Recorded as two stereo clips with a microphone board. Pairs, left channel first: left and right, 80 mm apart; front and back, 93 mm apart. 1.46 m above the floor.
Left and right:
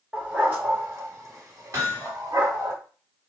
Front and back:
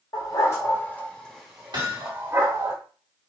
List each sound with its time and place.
0.1 s a dog barking: 25° right, 1.7 m; by 2.7 s 135° right, 2 m
1.7 s hammering: 145° right, 2 m